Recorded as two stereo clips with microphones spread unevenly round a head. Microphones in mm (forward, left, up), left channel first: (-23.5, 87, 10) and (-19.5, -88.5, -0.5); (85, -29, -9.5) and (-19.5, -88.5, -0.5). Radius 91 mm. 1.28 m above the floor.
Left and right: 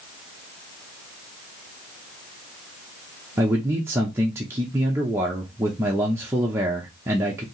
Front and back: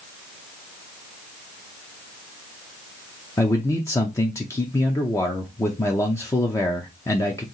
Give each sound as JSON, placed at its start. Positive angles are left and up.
{"t": 3.4, "sound": "a man speaking", "azimuth_deg": -20, "distance_m": 0.6}